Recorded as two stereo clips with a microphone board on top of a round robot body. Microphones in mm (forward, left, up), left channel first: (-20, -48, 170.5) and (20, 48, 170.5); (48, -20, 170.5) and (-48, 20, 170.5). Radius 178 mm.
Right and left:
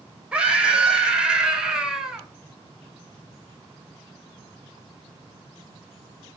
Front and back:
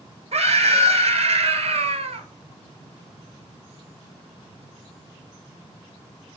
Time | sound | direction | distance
0.3 | a scream | 150° left | 4.5 m